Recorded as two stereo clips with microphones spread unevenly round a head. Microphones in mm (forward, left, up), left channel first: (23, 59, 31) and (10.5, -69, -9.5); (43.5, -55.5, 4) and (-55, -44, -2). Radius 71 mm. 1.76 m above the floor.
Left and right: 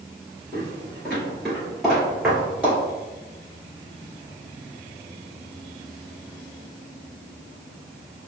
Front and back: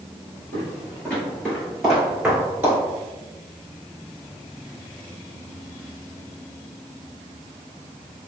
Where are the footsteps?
55° left, 2.0 m; by 2.8 s 155° left, 1.7 m.